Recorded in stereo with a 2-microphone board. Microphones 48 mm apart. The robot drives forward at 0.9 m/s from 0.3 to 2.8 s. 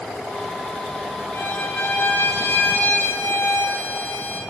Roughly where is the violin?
Left.